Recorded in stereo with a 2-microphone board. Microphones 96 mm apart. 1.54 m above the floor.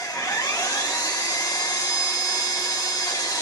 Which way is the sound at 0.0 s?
40° left (ahead or behind).